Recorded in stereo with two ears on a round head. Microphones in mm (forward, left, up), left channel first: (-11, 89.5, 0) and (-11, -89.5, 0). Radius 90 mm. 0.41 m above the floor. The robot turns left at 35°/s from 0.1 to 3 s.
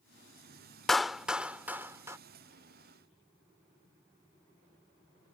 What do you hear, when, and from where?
0.9 s a clap: centre (ahead or behind); by 2.2 s 15° right (ahead or behind)